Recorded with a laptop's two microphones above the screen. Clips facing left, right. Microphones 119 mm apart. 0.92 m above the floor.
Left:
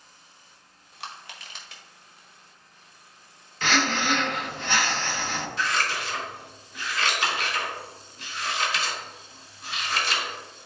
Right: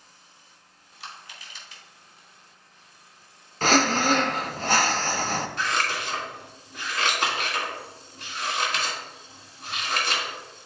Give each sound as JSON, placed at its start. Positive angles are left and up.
{"t": 1.0, "sound": "crushing", "side_deg": 75, "distance_m": 1.4}
{"t": 3.6, "sound": "breathing", "side_deg": -40, "distance_m": 0.5}
{"t": 5.6, "sound": "scissors", "side_deg": -55, "distance_m": 2.0}